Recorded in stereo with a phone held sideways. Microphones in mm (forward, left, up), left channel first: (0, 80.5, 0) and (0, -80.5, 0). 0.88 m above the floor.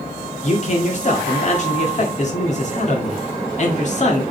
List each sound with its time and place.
0.4 s a man speaking: 45° left (ahead or behind), 2.0 m